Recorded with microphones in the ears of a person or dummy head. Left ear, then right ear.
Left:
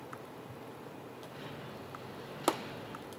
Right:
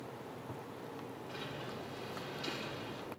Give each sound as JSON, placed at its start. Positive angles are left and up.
{"t": 1.3, "sound": "a sliding door", "side_deg": -45, "distance_m": 3.5}